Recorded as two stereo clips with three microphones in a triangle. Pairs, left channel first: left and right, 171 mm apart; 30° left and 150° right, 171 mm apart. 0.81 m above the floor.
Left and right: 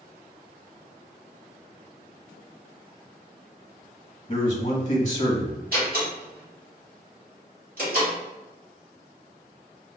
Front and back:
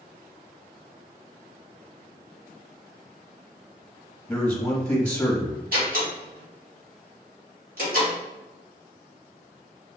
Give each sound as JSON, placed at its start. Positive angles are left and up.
{"t": 4.3, "sound": "a man speaking", "azimuth_deg": 80, "distance_m": 1.1}
{"t": 5.7, "sound": "a door slam", "azimuth_deg": -120, "distance_m": 1.8}